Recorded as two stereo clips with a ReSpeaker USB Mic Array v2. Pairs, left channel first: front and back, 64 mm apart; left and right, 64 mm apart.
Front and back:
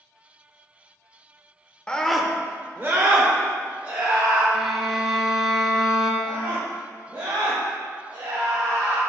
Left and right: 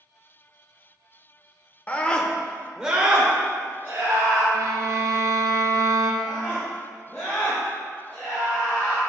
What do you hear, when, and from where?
1.9 s a scream: 55° left, 0.8 m; by 4.4 s 150° right, 2 m
4.5 s a violin: 100° right, 1.1 m
6.2 s a scream: 170° left, 1.8 m